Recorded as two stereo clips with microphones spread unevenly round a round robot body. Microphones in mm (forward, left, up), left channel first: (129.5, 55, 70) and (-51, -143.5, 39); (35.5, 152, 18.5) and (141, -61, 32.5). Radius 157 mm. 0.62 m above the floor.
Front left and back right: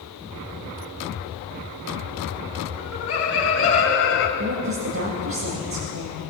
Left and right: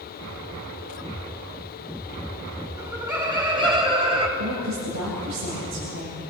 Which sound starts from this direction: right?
A woman speaking, at 4.4 s.